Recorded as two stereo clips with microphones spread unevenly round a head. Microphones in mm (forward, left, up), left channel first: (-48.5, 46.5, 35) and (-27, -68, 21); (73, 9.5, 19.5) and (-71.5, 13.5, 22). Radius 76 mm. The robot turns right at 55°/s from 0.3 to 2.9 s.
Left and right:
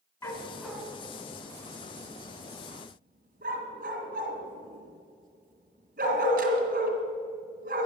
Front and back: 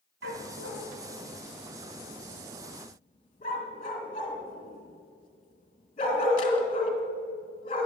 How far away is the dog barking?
About 2.5 m.